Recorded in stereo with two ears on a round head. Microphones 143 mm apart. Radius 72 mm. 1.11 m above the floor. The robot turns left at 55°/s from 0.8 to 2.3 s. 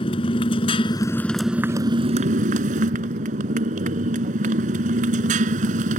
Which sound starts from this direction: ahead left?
A motorcycle, at 0.0 s.